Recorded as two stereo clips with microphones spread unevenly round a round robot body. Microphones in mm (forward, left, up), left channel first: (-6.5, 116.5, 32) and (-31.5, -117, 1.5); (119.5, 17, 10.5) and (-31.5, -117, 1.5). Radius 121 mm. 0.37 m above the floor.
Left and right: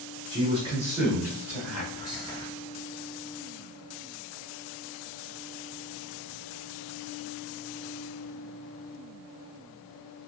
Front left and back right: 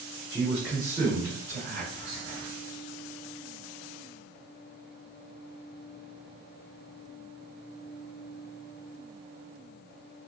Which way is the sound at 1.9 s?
25° left.